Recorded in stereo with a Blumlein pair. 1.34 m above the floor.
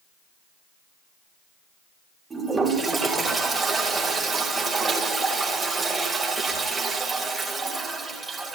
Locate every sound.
2.3 s a toilet flushing: 15° right, 4 m